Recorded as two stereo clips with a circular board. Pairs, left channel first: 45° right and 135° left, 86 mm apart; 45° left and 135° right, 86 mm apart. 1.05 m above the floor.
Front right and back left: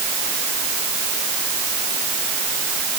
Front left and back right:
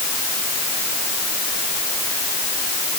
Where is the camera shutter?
I don't hear a camera shutter.